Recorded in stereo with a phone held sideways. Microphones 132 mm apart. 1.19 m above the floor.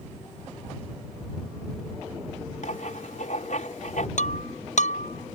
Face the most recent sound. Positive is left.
turn(degrees=65)  # may be behind; listen again after turning